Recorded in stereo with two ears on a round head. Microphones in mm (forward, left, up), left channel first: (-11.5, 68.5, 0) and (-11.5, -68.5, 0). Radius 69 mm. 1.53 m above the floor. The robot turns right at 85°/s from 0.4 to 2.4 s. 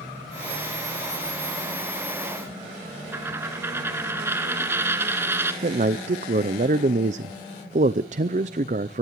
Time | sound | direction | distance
3.1 | a dropped coin | 15° right (ahead or behind) | 1.5 m
5.6 | a man speaking | 45° right (ahead or behind) | 0.5 m